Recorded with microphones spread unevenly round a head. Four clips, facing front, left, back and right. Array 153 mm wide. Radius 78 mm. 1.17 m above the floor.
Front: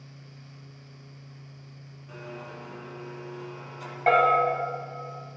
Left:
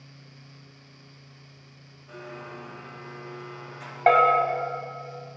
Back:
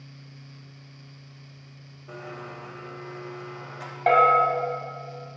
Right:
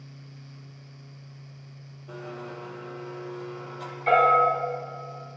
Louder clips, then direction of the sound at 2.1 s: Right 2 dB, back 2 dB; 145° right.